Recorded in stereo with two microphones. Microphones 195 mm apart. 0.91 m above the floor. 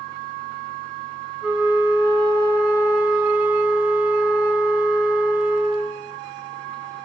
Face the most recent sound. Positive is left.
turn(degrees=-5)  # may be behind; listen again after turning